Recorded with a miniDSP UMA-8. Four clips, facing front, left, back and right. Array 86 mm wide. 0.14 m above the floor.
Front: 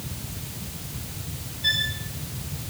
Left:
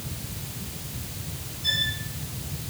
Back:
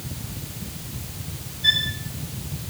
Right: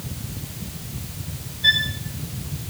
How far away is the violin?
About 8.5 m.